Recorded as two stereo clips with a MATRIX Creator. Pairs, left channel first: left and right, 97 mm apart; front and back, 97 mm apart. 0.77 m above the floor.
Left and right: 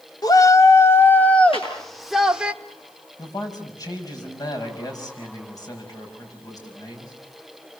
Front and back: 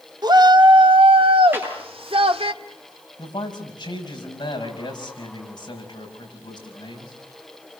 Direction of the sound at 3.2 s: 40° left.